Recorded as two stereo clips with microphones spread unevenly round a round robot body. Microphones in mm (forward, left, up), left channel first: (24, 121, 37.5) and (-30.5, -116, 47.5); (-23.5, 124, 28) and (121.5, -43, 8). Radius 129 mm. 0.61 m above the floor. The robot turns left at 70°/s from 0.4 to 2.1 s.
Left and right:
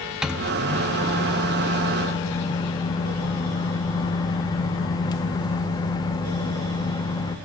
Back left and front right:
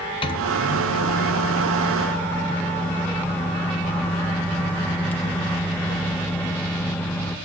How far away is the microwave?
About 0.9 m.